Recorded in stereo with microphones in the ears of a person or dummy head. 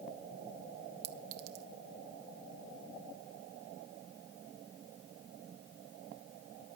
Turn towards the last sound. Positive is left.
turn(degrees=-65)  # may be behind; listen again after turning